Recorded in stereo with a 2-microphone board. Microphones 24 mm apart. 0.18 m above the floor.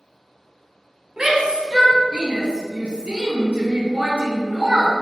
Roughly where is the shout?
Right.